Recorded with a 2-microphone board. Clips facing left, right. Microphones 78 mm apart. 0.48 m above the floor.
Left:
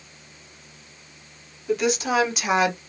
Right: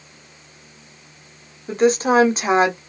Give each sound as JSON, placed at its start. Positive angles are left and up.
{"t": 1.7, "sound": "a woman speaking", "side_deg": -40, "distance_m": 1.3}